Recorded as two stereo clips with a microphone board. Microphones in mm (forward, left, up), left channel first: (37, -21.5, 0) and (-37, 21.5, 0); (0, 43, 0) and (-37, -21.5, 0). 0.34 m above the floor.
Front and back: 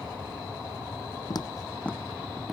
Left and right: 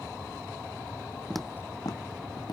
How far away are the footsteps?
About 0.5 m.